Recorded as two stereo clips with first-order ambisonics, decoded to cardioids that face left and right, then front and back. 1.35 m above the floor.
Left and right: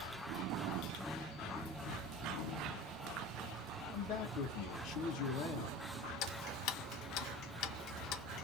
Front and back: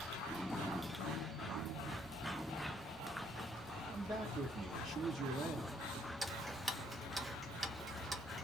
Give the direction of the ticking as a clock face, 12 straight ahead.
9 o'clock.